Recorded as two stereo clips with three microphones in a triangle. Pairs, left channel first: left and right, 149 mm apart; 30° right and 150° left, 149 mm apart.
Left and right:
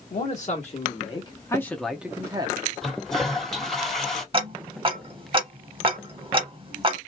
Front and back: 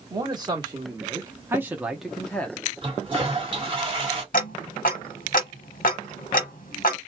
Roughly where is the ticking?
Ahead right.